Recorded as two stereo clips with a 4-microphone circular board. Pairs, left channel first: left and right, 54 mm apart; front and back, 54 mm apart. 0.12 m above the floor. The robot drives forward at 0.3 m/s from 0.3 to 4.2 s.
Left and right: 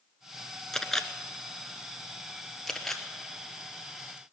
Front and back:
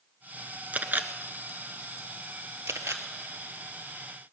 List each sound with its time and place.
0.7 s a camera shutter: 165° left, 0.7 m; by 3.0 s 175° left, 1.2 m